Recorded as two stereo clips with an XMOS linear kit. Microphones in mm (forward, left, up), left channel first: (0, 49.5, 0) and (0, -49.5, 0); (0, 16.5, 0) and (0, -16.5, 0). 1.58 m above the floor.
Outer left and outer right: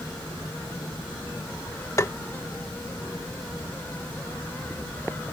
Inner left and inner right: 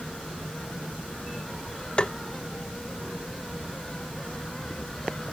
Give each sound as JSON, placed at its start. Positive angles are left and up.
{"t": 2.0, "sound": "tapping", "side_deg": 35}